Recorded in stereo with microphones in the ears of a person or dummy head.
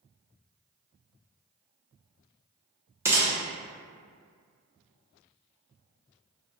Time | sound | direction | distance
3.0 | a gunshot | 15° right (ahead or behind) | 0.9 m